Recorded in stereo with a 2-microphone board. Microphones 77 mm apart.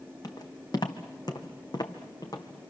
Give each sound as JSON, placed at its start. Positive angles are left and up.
{"t": 0.2, "sound": "footsteps", "side_deg": 60, "distance_m": 2.5}